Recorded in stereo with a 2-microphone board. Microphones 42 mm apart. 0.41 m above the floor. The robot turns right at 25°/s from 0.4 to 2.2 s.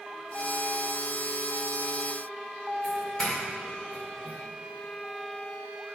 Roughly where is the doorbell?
Centre.